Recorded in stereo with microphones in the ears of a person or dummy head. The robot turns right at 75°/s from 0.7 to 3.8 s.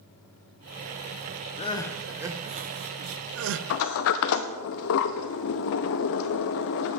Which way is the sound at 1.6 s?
145° left.